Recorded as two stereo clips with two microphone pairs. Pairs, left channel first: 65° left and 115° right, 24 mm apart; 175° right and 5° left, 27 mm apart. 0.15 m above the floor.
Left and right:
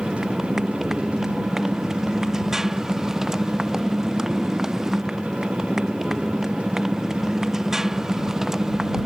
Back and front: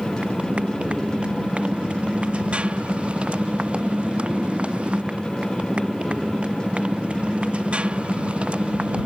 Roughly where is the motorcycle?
Ahead right.